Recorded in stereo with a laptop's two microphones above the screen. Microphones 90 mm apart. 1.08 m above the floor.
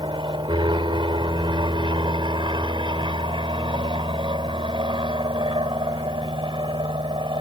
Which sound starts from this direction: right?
An aircraft, at 0.0 s.